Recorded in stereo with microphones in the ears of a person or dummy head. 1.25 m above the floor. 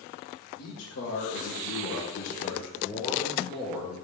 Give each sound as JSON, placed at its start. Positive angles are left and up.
{"t": 0.6, "sound": "a man speaking", "side_deg": 70, "distance_m": 1.4}